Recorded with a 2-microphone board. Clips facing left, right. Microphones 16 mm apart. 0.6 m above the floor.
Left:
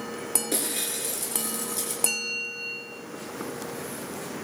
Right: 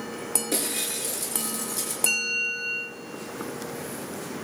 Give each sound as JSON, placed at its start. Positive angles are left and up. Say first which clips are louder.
{"t": 0.5, "sound": "breaking glass", "louder": "right 1 dB", "side_deg": 5, "distance_m": 6.0}
{"t": 2.1, "sound": "a bell", "louder": "right 6 dB", "side_deg": -10, "distance_m": 2.5}